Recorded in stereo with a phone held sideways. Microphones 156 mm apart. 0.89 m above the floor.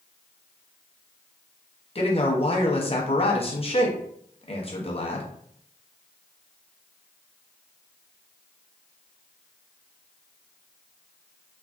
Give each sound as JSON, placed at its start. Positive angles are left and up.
{"t": 1.9, "sound": "a man speaking", "side_deg": 40, "distance_m": 0.7}